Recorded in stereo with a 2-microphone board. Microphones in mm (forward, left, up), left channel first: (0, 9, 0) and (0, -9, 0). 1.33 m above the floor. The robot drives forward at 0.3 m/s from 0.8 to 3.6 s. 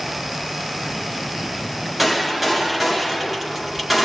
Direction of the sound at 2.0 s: 5° right (ahead or behind).